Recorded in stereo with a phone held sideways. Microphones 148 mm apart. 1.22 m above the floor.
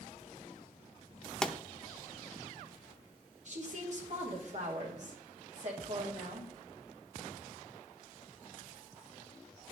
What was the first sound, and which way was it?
A pop, 5° left (ahead or behind).